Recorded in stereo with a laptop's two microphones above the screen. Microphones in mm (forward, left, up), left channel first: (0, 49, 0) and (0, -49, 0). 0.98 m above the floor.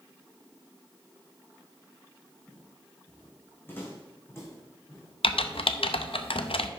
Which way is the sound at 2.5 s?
10° left (ahead or behind).